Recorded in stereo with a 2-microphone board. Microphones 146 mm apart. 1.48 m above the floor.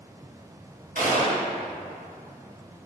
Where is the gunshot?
65° right (ahead or behind), 2.5 m.